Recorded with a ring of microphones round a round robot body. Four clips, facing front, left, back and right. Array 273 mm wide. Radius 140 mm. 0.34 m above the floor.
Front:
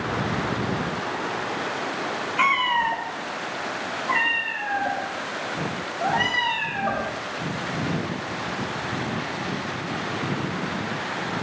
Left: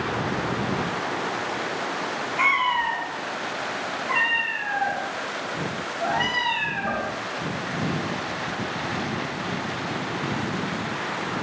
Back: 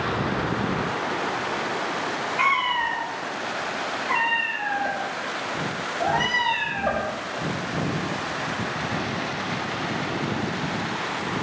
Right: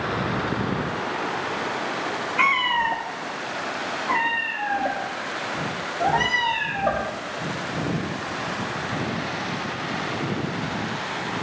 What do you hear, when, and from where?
2.4 s a cat meowing: 50° right, 1.1 m; by 7.0 s 125° right, 3 m